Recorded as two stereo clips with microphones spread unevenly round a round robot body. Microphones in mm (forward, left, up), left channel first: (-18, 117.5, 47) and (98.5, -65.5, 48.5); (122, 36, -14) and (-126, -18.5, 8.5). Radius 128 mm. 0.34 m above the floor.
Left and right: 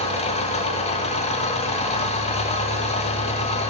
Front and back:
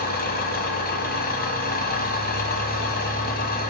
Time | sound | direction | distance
0.0 | an engine running | 65° left | 1.2 m